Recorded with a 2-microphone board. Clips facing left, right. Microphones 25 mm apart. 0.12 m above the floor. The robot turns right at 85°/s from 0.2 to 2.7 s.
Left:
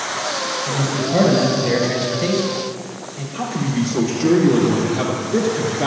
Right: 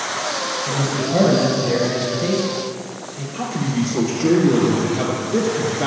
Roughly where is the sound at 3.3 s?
Centre.